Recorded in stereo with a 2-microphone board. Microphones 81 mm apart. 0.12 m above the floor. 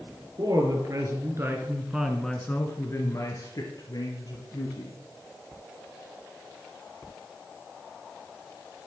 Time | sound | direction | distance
0.4 | a woman speaking | 55° right (ahead or behind) | 3 m